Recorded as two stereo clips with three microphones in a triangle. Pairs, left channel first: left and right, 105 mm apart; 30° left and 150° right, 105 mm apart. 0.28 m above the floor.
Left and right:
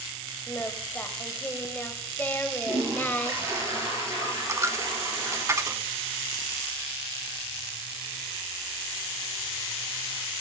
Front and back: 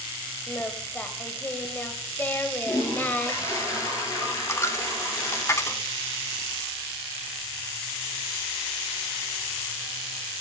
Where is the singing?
60° left, 1.0 m.